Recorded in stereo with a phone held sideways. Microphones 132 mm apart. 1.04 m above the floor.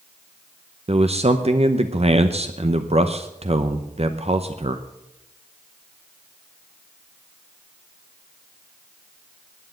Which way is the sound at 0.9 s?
50° right (ahead or behind).